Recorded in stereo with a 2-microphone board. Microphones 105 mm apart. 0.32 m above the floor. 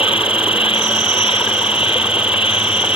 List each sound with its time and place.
0.0 s an insect: 60° left (ahead or behind)